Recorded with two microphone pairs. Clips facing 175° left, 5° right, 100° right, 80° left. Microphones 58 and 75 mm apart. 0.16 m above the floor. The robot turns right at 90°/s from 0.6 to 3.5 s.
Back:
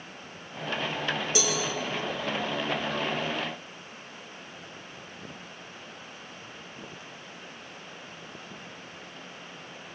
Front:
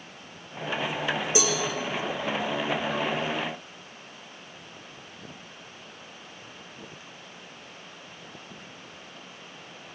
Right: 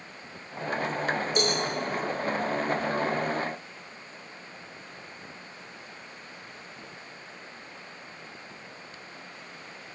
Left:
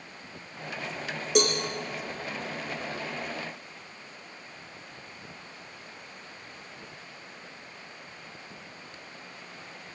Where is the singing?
I don't hear singing.